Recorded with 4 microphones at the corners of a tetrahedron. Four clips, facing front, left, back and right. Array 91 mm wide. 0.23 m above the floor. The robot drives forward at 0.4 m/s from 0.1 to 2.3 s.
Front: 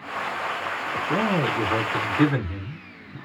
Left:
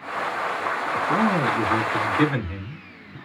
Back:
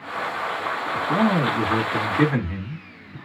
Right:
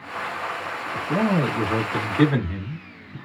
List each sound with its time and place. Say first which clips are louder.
0.9 s a man speaking: even, back 3 dB; 165° right, 1.1 m; by 3.2 s 170° right, 1.4 m